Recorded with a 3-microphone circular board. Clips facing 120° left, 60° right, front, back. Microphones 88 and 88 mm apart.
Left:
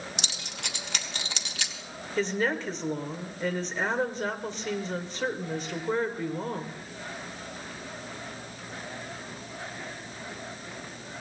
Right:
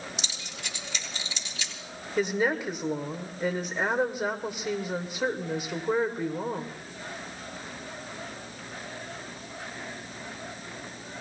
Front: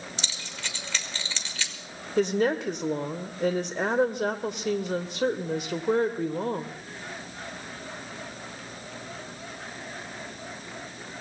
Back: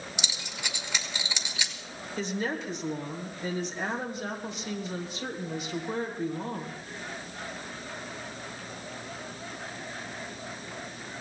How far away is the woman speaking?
About 1.6 m.